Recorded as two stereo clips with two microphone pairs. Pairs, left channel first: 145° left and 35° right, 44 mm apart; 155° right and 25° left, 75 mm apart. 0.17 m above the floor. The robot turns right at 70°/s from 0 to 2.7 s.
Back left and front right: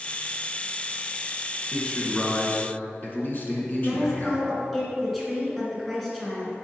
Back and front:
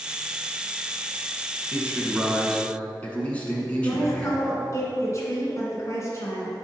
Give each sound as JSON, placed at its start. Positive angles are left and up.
{"t": 1.7, "sound": "a man speaking", "azimuth_deg": 70, "distance_m": 1.7}
{"t": 3.8, "sound": "a woman speaking", "azimuth_deg": -130, "distance_m": 1.9}